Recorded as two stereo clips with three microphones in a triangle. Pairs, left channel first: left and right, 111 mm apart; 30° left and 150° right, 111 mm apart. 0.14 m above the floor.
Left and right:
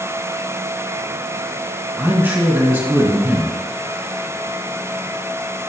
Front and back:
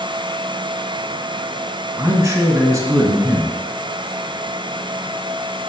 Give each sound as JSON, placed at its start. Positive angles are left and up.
{"t": 2.0, "sound": "a man speaking", "azimuth_deg": -140, "distance_m": 1.7}